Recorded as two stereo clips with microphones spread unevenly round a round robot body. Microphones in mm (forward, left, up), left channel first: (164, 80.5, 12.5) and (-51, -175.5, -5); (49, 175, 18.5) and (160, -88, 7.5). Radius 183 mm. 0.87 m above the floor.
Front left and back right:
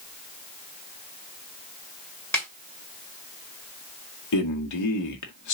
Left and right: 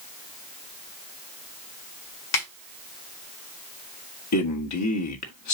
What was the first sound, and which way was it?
A snare drum, 135° left.